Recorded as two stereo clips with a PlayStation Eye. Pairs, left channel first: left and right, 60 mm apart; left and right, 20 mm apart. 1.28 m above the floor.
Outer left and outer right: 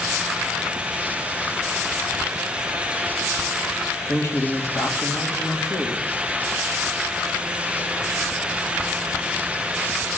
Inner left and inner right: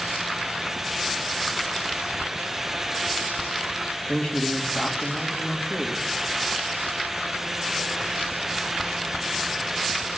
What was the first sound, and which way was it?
A man speaking, 50° left (ahead or behind).